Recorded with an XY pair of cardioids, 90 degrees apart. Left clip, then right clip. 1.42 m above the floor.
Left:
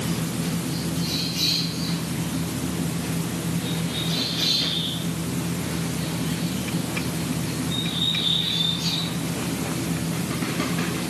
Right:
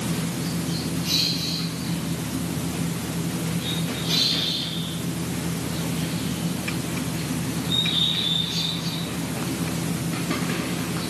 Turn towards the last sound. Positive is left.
No sound to turn to.